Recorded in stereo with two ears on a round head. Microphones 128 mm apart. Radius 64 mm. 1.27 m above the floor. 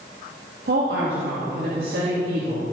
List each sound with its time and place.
0.7 s a woman speaking: 80° right, 2.5 m